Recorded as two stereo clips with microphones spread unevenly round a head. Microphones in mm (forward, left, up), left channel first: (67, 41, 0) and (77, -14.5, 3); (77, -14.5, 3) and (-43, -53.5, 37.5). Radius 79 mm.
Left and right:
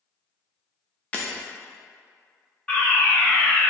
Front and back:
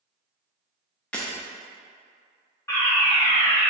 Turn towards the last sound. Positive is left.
turn(degrees=45)